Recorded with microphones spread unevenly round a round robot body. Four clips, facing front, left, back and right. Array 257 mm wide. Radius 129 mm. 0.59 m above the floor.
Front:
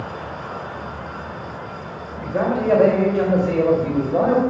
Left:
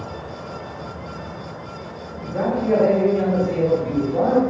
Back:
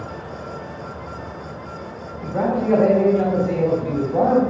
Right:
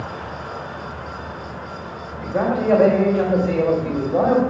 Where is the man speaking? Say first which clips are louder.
Right 2 dB, even; 40° right, 3 m.